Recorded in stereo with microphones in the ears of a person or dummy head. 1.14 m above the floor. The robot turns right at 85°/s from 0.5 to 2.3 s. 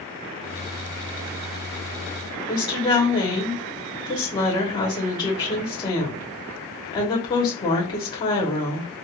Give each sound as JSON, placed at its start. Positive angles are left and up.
{"t": 2.5, "sound": "a woman speaking", "side_deg": 25, "distance_m": 1.1}